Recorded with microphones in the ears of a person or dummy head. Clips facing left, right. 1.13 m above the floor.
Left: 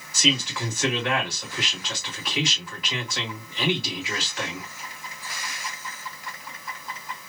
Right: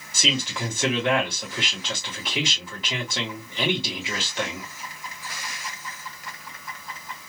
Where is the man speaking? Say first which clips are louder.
Left 2 dB; 25° right (ahead or behind), 1.6 m.